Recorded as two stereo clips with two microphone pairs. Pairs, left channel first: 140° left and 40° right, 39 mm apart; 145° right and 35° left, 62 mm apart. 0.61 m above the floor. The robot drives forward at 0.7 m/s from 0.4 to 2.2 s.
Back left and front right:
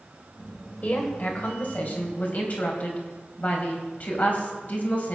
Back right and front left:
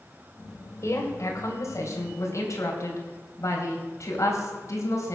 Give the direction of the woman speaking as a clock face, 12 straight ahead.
6 o'clock.